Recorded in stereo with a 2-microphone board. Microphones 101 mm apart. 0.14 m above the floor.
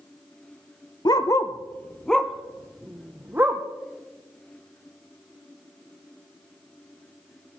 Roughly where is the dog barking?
Left.